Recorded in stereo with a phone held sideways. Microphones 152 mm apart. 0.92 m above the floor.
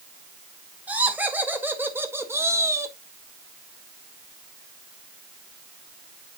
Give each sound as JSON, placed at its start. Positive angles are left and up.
{"t": 0.9, "sound": "laughter", "side_deg": -10, "distance_m": 2.0}